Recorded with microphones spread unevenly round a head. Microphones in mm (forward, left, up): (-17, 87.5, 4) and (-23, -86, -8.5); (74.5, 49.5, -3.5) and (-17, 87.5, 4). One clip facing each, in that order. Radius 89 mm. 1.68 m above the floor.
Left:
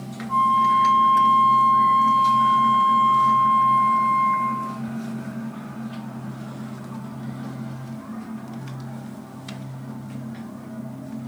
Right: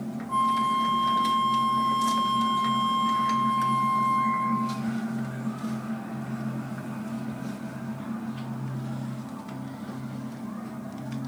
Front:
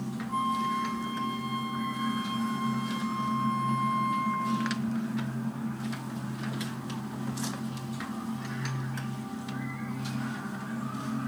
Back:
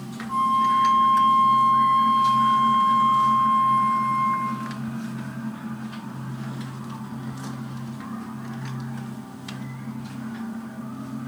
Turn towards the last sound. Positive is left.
turn(degrees=-130)